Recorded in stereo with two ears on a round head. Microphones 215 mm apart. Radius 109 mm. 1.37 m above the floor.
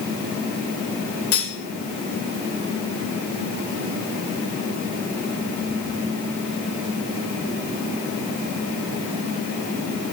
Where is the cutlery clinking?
70° left (ahead or behind), 3.5 m.